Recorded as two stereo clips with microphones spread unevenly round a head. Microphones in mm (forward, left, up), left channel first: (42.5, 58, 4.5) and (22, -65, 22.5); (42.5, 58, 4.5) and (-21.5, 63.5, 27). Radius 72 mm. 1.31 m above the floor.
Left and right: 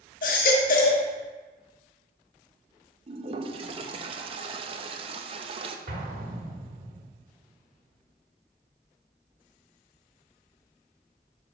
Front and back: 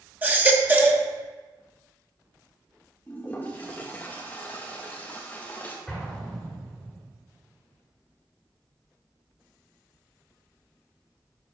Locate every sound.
0.2 s a baby crying: 115° left, 1.4 m
3.1 s a toilet flushing: 95° right, 0.7 m
5.9 s an explosion: 100° right, 1.7 m